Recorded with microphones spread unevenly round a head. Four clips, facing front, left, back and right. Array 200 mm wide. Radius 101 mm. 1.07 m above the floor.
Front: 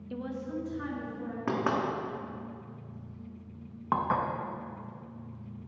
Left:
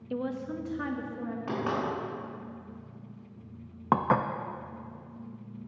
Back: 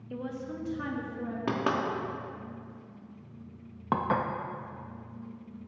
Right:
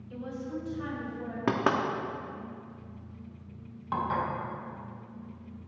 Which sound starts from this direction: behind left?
Dishes clattering, at 3.9 s.